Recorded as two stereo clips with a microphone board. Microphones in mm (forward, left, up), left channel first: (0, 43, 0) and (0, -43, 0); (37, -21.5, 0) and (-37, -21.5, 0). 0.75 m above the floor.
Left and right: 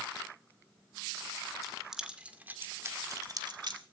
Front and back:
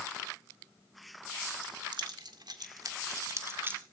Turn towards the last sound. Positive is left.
turn(degrees=-115)